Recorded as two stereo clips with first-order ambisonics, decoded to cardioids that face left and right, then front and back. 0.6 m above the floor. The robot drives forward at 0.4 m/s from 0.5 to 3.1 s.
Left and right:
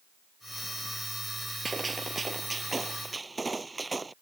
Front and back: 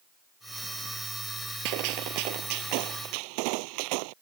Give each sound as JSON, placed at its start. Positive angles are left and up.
{"t": 1.6, "sound": "a gunshot", "azimuth_deg": -170}